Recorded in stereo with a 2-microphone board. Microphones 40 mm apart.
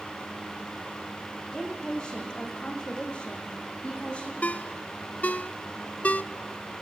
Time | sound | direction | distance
1.5 | a woman speaking | 20° left (ahead or behind) | 8.5 m
4.4 | a ringtone | 40° left (ahead or behind) | 0.7 m